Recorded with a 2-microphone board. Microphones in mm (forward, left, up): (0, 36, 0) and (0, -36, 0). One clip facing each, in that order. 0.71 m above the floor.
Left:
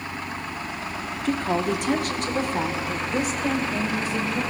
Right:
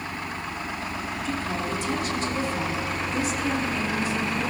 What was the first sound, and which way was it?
A woman speaking, 60° left (ahead or behind).